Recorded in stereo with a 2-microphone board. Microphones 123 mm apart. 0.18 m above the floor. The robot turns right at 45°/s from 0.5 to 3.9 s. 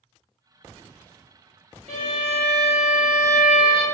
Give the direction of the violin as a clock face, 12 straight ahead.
3 o'clock.